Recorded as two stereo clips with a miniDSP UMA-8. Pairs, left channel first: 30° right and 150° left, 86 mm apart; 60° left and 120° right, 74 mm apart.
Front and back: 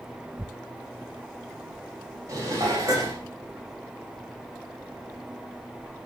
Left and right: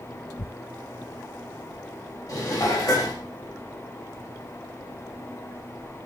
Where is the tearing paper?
60° left, 0.7 m.